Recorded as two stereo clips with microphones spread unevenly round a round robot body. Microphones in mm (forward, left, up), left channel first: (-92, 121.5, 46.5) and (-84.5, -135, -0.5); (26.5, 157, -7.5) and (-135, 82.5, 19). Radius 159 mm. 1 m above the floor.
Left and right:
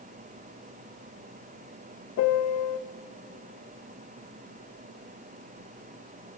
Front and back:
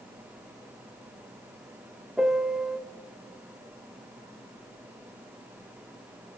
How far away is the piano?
About 0.7 m.